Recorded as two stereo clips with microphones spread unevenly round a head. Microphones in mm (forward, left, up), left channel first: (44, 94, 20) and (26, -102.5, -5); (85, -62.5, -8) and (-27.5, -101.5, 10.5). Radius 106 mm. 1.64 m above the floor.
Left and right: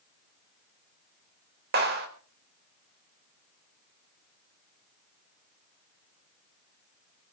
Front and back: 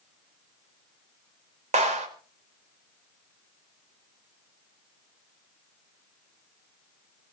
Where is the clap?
145° right, 4.5 m.